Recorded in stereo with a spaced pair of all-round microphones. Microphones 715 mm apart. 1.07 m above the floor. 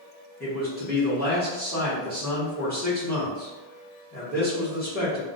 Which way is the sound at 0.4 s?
15° left (ahead or behind).